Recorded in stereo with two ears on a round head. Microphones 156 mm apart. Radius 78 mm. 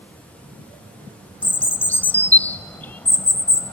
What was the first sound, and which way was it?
A bird, 10° left (ahead or behind).